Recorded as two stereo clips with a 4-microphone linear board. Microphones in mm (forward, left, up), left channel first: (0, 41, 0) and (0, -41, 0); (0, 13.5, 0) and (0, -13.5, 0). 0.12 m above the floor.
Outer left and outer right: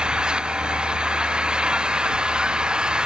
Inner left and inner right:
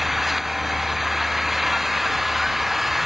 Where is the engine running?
10° right (ahead or behind).